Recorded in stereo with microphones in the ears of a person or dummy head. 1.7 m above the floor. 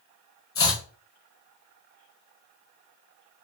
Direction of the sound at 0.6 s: 25° left (ahead or behind).